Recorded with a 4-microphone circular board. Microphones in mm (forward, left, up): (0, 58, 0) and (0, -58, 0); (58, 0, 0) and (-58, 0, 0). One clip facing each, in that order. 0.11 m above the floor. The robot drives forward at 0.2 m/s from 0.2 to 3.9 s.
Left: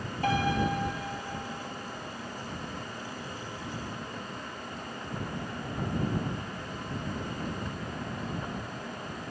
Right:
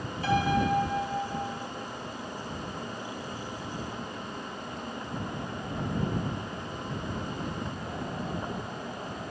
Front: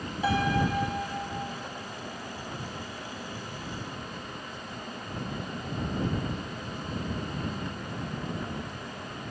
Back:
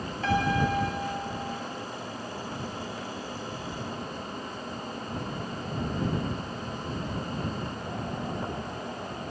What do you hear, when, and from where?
0.2 s a piano: 75° left, 0.9 m; by 1.5 s 95° left, 0.8 m